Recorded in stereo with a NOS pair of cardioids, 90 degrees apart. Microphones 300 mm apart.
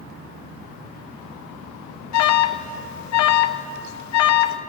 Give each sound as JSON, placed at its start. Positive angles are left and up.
{"t": 2.1, "sound": "an alarm", "azimuth_deg": 60, "distance_m": 0.7}